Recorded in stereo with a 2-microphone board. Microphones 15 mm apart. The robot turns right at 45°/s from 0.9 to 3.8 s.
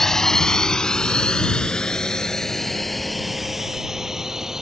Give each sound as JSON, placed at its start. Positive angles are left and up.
{"t": 0.0, "sound": "a drone", "side_deg": 35}